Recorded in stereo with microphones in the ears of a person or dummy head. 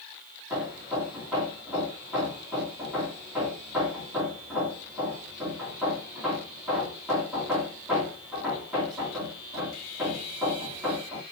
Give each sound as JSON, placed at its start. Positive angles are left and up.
{"t": 0.5, "sound": "hammering", "side_deg": 0, "distance_m": 6.0}